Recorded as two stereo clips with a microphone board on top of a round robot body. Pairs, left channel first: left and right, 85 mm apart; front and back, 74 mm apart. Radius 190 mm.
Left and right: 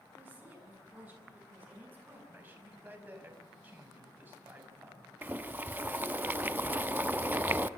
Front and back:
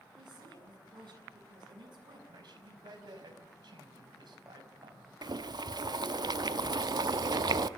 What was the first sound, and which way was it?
A woman speaking, 160° right.